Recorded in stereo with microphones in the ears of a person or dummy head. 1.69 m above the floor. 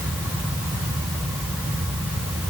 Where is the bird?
I don't hear a bird.